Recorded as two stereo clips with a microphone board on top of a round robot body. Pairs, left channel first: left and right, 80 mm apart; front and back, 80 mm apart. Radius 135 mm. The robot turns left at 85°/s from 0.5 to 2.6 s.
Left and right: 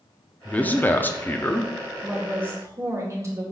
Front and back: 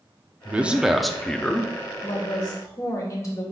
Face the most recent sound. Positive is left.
turn(degrees=-45)